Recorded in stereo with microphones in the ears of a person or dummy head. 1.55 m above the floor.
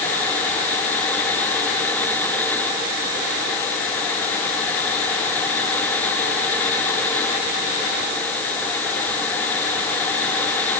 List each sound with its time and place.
Only background noise.